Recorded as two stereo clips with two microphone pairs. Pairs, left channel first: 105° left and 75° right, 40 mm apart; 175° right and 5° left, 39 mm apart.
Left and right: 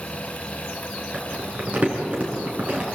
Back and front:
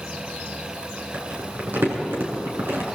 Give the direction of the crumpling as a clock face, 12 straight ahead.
1 o'clock.